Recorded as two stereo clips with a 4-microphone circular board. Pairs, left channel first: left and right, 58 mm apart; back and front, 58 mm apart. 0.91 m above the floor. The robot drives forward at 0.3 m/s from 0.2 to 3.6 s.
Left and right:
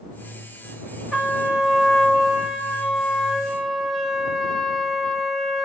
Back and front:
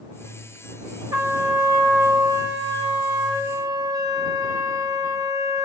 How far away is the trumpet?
About 1.3 m.